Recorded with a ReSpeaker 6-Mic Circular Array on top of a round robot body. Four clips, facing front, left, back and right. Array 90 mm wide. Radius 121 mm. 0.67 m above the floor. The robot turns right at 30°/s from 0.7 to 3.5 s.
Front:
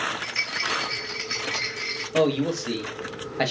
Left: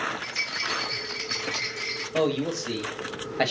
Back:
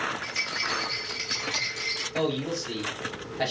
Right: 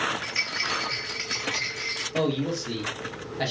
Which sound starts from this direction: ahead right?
A rattle, at 0.2 s.